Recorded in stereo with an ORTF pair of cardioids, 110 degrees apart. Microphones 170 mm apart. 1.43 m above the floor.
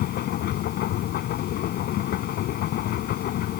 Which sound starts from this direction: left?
A machine running, at 0.0 s.